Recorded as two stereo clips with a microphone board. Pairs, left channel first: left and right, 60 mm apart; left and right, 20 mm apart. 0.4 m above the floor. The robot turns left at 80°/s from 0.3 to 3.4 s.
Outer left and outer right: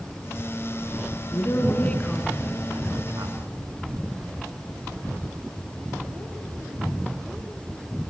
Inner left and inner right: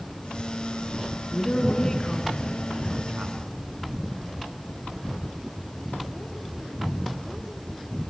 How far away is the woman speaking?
About 4.5 m.